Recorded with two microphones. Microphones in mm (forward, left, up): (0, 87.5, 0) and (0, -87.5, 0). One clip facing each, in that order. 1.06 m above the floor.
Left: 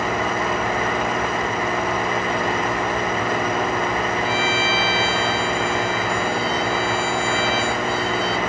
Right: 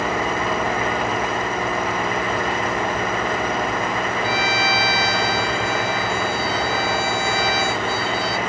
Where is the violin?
70° right (ahead or behind).